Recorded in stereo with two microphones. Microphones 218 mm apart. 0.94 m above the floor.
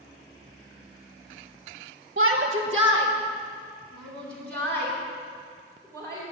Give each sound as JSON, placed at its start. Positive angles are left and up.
{"t": 2.2, "sound": "a shout", "side_deg": -55, "distance_m": 0.7}